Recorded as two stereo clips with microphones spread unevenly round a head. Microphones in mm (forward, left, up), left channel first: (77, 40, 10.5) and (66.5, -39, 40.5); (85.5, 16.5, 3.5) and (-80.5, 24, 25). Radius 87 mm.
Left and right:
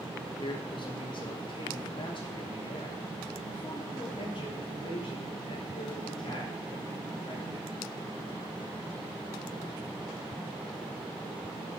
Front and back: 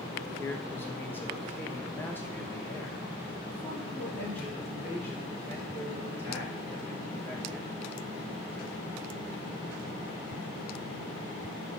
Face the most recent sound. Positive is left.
turn(degrees=80)